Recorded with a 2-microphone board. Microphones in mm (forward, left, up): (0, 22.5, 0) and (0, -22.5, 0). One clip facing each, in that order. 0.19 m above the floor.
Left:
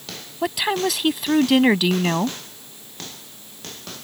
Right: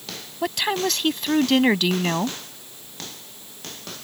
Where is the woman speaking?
5° left (ahead or behind).